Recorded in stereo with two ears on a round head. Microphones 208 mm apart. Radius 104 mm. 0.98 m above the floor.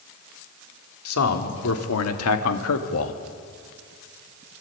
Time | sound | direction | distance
1.1 | a man speaking | 75° left (ahead or behind) | 3 m